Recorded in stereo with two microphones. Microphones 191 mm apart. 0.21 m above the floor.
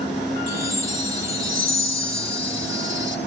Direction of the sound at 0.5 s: 50° right (ahead or behind).